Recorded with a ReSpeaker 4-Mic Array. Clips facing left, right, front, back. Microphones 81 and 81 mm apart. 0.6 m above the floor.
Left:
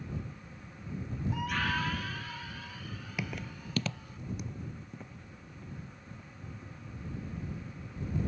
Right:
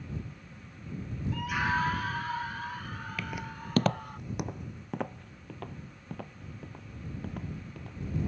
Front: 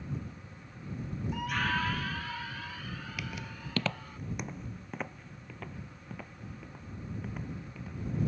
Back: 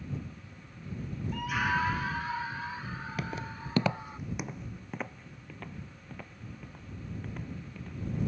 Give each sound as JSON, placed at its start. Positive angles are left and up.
{"t": 1.3, "sound": "a scream", "azimuth_deg": 60}
{"t": 3.2, "sound": "footsteps", "azimuth_deg": 160}